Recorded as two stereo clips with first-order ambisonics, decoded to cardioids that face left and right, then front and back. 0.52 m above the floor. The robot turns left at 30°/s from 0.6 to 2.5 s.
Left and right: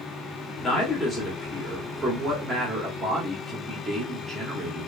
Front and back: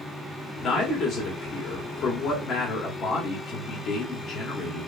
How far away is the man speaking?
About 1.5 m.